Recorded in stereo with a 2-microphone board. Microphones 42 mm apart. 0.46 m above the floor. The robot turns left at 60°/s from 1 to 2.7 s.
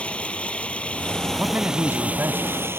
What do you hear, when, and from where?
0.0 s running water: 30° left; by 2.8 s 75° right
1.4 s a man speaking: 45° right; by 2.8 s 125° right